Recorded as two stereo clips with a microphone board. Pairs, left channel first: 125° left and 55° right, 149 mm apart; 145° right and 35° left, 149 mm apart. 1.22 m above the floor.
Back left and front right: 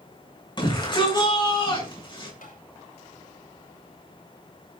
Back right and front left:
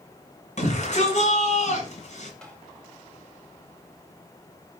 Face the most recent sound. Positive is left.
turn(degrees=130)